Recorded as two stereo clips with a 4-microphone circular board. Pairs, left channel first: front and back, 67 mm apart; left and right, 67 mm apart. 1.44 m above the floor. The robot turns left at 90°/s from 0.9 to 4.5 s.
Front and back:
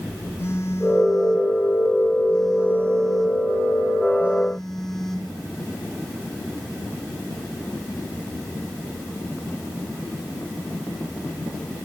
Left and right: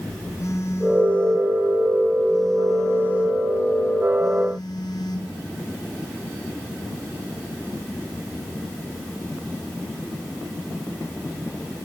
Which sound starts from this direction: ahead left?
A phone buzzing, at 0.4 s.